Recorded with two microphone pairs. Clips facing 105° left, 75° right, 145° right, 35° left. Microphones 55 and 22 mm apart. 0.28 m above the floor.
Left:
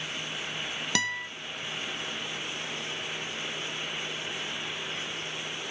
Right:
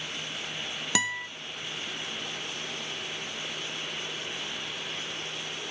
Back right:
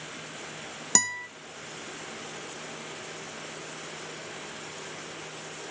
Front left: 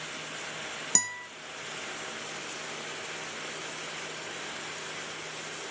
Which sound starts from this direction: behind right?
A guitar, at 0.9 s.